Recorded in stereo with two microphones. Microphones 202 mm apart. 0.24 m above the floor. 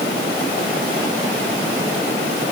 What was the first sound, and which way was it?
Only background noise.